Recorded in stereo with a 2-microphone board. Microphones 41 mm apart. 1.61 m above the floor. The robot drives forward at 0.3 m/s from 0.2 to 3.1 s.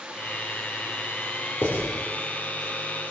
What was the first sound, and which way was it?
Writing, 75° left (ahead or behind).